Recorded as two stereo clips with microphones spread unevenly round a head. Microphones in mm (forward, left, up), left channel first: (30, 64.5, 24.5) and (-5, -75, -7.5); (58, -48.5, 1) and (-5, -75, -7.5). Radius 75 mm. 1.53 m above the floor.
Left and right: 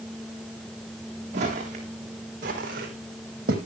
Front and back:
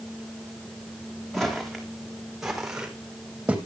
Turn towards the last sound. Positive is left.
turn(degrees=-80)